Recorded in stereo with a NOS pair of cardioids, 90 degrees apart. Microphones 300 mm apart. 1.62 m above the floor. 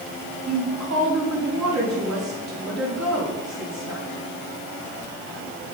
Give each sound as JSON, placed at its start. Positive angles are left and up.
{"t": 0.5, "sound": "a woman speaking", "azimuth_deg": -60, "distance_m": 4.5}